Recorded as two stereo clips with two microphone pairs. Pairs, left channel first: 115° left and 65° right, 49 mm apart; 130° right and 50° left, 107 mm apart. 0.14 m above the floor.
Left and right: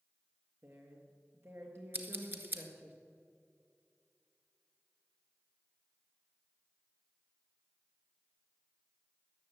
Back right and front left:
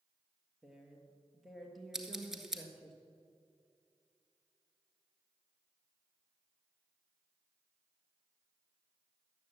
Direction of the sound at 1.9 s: 35° right.